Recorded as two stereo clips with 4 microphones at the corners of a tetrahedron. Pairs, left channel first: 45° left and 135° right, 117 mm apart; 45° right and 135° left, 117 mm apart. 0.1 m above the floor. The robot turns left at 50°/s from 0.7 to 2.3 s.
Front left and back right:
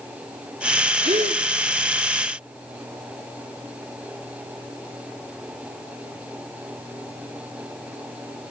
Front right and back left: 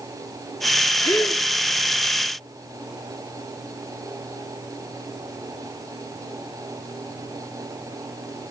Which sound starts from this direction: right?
A gasp, at 1.0 s.